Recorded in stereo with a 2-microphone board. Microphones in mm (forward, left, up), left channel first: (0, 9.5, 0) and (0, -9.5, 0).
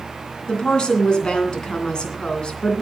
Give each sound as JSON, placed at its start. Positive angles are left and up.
{"t": 0.5, "sound": "a woman speaking", "side_deg": 50, "distance_m": 3.0}